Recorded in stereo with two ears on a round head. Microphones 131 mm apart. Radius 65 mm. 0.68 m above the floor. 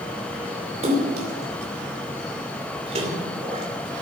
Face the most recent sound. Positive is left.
turn(degrees=-45)  # may be behind; listen again after turning